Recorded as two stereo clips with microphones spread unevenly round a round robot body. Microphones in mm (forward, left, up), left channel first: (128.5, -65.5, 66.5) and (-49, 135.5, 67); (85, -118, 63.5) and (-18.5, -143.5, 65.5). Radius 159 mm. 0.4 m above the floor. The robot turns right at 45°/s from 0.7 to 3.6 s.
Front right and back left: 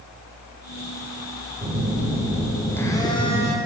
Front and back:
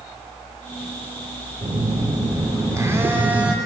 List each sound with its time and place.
1.6 s a phone buzzing: 175° right, 1.4 m; by 3.5 s 90° right, 1.4 m